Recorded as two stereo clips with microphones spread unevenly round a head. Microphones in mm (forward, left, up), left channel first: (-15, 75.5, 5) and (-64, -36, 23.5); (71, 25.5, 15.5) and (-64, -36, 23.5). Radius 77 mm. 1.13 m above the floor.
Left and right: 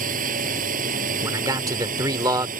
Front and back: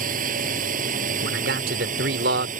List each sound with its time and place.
0.0 s a drone: 120° right
1.2 s a man speaking: 175° right